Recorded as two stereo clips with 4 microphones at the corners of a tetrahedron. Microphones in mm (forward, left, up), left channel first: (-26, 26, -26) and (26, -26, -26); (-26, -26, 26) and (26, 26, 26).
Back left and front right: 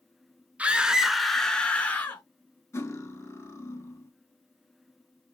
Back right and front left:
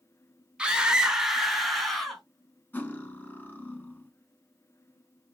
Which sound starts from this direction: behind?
Cutlery clinking, at 2.7 s.